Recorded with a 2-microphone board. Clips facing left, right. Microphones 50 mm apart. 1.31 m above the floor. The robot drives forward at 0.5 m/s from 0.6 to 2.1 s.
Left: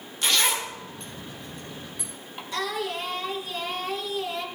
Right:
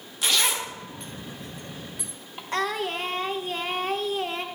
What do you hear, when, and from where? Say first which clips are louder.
0.2 s a zipper: left 1 dB; centre (ahead or behind), 1.7 m
2.5 s singing: right 2 dB; 40° right (ahead or behind), 1.1 m